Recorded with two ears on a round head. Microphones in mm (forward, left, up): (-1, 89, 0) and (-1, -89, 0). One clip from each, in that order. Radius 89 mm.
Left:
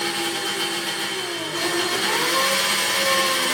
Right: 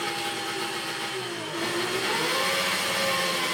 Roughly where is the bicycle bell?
I don't hear a bicycle bell.